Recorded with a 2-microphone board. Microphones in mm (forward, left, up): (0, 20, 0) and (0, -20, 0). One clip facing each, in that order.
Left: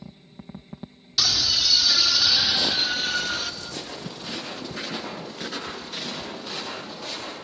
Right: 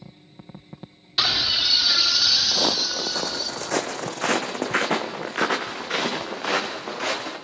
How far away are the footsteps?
About 1.1 m.